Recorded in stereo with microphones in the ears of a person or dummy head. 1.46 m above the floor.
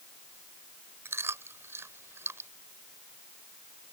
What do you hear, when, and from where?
1.1 s chewing: 15° right (ahead or behind)